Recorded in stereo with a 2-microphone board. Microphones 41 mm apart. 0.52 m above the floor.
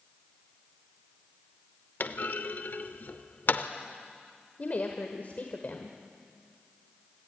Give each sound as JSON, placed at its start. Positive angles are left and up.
{"t": 2.0, "sound": "a clunk", "side_deg": 55, "distance_m": 0.8}
{"t": 4.6, "sound": "a woman speaking", "side_deg": 45, "distance_m": 1.6}